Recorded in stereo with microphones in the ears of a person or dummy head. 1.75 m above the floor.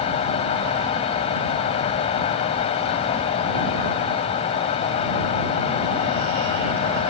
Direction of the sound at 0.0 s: 35° left (ahead or behind).